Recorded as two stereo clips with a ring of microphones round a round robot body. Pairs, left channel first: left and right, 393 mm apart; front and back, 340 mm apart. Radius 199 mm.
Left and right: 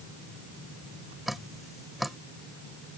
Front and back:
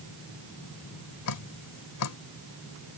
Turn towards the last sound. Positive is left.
turn(degrees=0)